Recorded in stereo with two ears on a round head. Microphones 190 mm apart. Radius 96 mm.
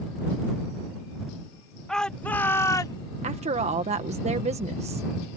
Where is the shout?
5° left (ahead or behind); by 3.0 s 20° left (ahead or behind).